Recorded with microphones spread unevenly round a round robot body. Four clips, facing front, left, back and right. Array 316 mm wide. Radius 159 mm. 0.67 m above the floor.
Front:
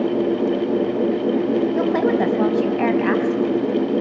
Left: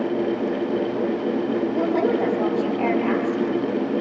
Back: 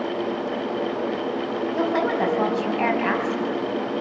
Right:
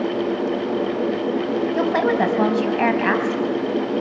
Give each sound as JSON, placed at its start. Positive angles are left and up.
{"t": 1.7, "sound": "a woman speaking", "azimuth_deg": -70, "distance_m": 4.5}